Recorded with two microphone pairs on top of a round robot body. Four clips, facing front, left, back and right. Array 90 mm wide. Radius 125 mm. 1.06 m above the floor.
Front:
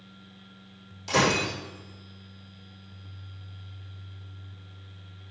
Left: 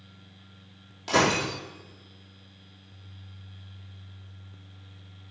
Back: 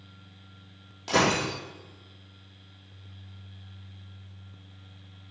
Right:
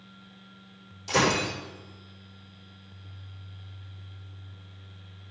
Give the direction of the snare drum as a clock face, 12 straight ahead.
No snare drum in this recording.